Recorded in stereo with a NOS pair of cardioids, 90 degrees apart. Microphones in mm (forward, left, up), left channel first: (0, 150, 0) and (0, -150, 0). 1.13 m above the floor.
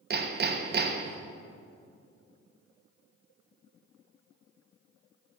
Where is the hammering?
35° right, 1.0 m.